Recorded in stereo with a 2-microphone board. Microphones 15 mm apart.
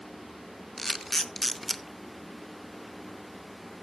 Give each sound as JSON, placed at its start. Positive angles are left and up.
{"t": 0.8, "sound": "a camera shutter", "side_deg": 15, "distance_m": 0.6}